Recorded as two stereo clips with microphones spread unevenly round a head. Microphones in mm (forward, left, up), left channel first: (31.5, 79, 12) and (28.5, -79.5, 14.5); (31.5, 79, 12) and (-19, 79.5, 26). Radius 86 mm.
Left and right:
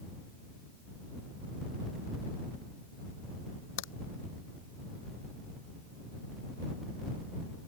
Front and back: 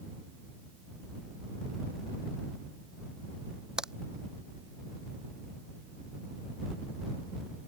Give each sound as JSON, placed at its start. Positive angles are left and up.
{"t": 3.8, "sound": "a crack", "azimuth_deg": 105}